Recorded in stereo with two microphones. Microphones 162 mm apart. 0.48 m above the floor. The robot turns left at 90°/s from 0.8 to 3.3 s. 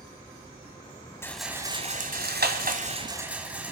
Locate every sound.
1.2 s a rattle: 15° left, 1.7 m; by 3.7 s 170° right, 1.7 m